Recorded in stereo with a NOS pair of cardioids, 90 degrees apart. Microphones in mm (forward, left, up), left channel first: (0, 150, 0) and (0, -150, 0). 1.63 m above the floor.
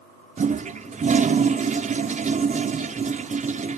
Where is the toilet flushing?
25° right, 0.7 m.